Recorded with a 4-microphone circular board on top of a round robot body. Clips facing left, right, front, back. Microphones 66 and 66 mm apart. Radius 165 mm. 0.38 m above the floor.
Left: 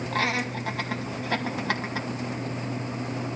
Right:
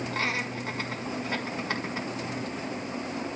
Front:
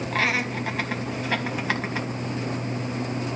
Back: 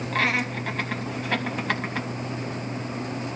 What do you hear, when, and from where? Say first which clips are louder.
0.1 s laughter: left 5 dB, even; 85° left, 3 m